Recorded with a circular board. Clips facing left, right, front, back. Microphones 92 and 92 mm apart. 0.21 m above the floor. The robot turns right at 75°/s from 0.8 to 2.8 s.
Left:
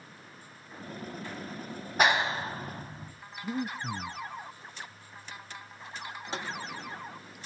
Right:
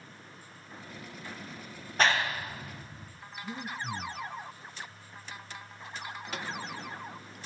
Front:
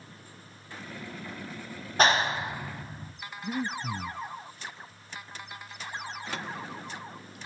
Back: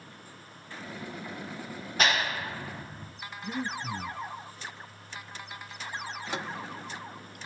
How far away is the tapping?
About 1.0 m.